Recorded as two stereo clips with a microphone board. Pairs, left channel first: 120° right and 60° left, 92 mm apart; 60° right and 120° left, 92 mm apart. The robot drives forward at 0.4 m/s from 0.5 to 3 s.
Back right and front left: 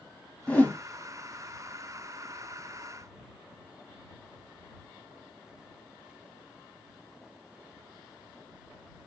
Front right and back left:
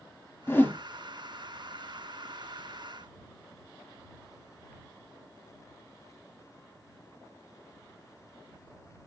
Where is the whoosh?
70° right, 0.8 m; by 0.8 s 90° right, 0.8 m.